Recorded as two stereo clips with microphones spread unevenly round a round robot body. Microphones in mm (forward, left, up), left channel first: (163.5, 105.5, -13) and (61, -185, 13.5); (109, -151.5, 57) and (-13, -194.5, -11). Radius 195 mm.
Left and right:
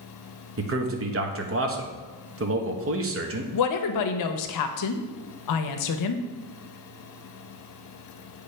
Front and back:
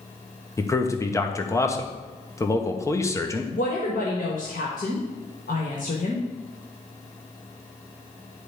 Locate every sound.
0.6 s a man speaking: 60° right, 1.2 m
3.5 s a woman speaking: 85° left, 0.7 m